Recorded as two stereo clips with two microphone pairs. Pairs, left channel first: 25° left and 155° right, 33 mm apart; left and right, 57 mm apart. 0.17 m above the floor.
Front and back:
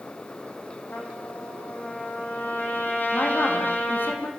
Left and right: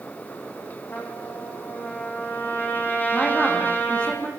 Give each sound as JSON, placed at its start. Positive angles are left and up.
{"t": 0.9, "sound": "a trumpet", "azimuth_deg": 35, "distance_m": 5.0}
{"t": 3.1, "sound": "a woman speaking", "azimuth_deg": 20, "distance_m": 7.0}